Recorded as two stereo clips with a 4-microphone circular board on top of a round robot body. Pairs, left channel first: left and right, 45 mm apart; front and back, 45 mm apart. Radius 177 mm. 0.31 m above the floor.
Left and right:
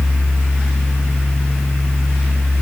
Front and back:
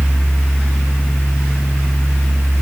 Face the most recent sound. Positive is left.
No sound to turn to.